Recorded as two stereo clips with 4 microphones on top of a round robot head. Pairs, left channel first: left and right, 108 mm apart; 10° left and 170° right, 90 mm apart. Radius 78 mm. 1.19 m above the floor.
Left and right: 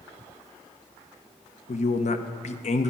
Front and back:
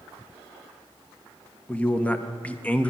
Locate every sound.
1.7 s a man speaking: 85° left, 0.9 m